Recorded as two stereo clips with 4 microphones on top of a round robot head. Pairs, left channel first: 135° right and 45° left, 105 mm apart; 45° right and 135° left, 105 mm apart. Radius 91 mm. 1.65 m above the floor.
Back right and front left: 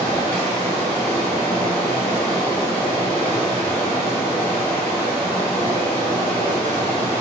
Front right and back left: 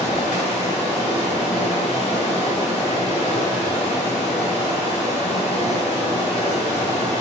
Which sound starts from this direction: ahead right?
Running water, at 0.0 s.